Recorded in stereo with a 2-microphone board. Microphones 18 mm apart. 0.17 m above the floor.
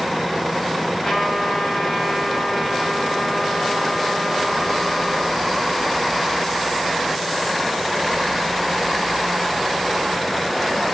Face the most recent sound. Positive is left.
turn(degrees=30)  # may be behind; listen again after turning